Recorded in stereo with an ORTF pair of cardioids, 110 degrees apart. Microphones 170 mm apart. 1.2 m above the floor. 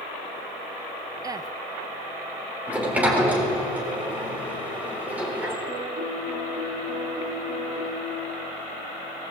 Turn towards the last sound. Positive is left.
turn(degrees=-50)